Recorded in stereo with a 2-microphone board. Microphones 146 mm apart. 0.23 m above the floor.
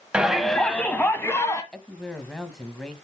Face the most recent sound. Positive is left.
turn(degrees=5)  # may be behind; listen again after turning